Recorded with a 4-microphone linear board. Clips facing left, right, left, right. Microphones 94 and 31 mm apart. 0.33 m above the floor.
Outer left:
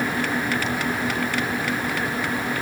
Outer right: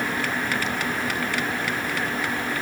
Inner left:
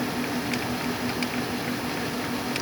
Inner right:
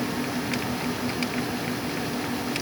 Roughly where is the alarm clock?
I don't hear an alarm clock.